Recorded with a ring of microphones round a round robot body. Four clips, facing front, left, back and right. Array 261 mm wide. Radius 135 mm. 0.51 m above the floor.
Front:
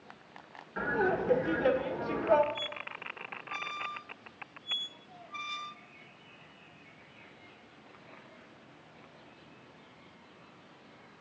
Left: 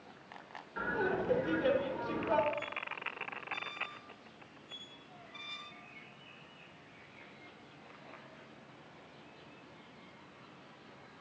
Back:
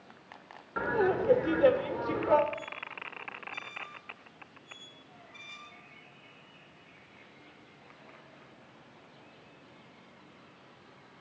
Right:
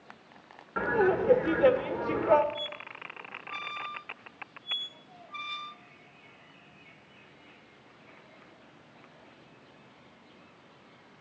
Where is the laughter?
120° right, 1.7 m.